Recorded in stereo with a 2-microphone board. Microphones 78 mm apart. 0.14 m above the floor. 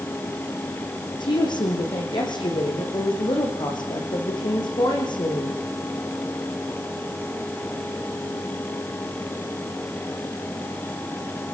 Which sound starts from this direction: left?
A woman speaking, at 1.2 s.